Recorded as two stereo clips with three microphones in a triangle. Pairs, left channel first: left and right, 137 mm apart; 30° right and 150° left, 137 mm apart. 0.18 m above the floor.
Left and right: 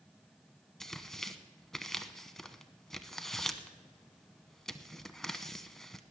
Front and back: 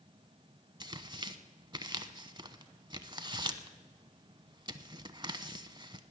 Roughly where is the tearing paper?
Behind.